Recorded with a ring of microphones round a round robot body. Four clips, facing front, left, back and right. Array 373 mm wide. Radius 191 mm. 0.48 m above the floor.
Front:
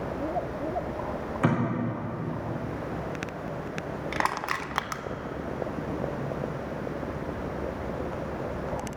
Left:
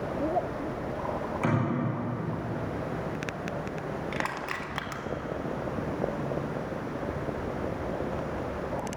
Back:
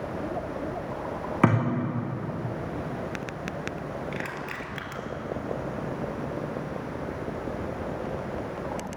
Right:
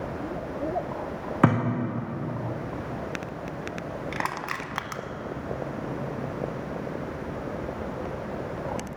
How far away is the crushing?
About 0.7 m.